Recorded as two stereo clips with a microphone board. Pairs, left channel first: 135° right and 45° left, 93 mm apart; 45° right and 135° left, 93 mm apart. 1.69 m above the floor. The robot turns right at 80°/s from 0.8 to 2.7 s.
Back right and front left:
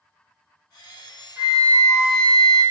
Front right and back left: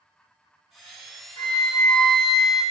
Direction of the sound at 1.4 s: 20° right.